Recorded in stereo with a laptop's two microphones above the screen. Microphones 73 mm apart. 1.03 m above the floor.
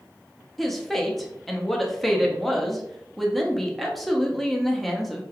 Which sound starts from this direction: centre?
A woman speaking, at 0.6 s.